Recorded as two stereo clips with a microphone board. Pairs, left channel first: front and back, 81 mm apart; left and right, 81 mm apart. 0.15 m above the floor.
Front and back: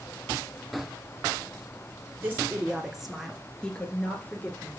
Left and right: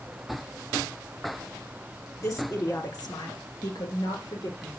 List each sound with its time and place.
2.2 s a woman speaking: 125° left, 1.8 m; by 4.8 s 65° left, 3 m